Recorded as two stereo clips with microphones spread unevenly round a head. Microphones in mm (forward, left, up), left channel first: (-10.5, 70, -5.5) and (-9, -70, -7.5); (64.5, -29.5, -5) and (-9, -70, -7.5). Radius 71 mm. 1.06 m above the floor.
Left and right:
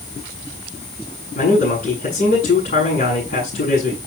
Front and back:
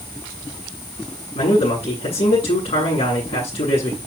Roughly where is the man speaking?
Ahead left.